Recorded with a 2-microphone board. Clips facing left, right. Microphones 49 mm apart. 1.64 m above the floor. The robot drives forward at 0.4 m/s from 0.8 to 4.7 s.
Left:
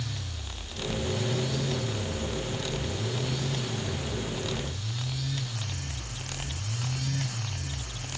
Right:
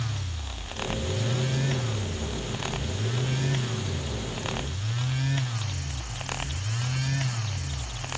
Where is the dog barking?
I don't hear a dog barking.